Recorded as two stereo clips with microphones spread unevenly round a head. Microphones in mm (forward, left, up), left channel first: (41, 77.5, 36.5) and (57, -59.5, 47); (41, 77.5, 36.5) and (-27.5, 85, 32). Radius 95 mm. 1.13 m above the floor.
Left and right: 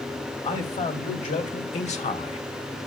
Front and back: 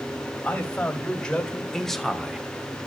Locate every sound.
0.4 s a man speaking: 65° left, 2.5 m; by 2.4 s 100° left, 0.9 m